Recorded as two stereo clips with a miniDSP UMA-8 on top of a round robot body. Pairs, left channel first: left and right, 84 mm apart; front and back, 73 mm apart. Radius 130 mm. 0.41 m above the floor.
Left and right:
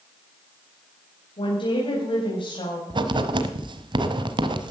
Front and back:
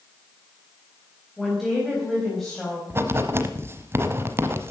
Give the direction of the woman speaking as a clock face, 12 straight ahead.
9 o'clock.